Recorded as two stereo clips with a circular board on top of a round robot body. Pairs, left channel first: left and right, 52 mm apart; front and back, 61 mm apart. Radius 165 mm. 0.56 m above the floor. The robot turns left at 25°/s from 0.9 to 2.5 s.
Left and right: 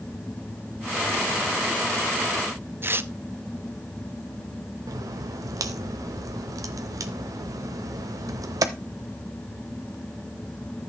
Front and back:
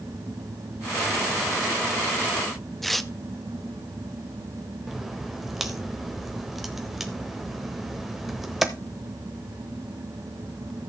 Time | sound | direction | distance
2.8 | tearing paper | 85° right | 1.0 m
4.9 | a crack | 90° right | 0.7 m